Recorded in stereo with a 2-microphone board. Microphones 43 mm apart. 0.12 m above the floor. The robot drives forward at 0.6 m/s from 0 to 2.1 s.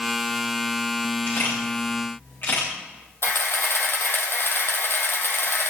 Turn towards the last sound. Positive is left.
turn(degrees=65)  # may be behind; listen again after turning